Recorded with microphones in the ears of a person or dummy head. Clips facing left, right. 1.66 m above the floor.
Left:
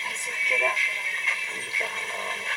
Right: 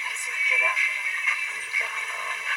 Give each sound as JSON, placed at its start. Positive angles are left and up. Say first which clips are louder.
{"t": 0.0, "sound": "a vehicle", "louder": "left 2 dB", "side_deg": 35}